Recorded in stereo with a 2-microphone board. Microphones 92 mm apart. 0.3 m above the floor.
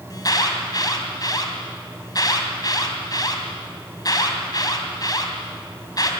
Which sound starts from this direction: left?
An alarm, at 0.1 s.